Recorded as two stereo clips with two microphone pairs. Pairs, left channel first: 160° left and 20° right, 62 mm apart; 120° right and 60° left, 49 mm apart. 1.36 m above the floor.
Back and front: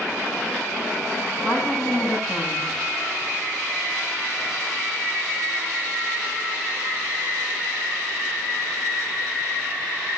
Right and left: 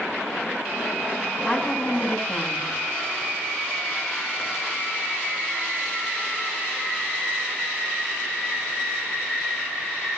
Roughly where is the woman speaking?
Behind left.